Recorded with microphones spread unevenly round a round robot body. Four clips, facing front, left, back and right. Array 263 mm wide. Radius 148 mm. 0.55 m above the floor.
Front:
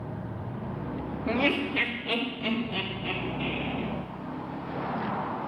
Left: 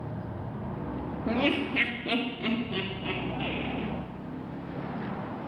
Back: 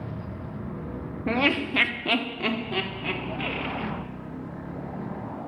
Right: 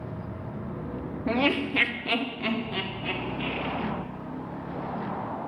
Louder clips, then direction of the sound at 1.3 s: Right 2 dB, back 2 dB; 140° right.